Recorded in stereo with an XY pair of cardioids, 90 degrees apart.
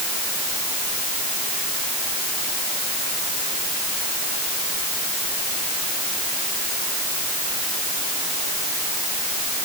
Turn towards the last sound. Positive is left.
No sound to turn to.